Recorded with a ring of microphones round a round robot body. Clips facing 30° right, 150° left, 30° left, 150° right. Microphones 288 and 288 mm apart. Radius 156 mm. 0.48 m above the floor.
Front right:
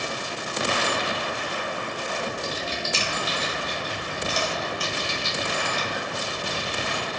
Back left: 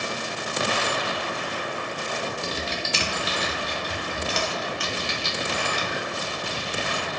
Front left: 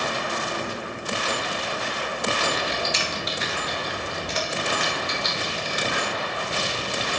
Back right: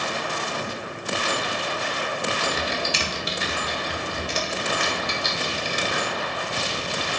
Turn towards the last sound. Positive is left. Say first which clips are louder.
# even, even
turn(degrees=155)